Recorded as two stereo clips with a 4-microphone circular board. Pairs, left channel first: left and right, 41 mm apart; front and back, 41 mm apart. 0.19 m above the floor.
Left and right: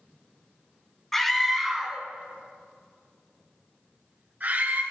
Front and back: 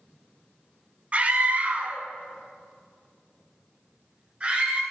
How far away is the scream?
About 1.6 m.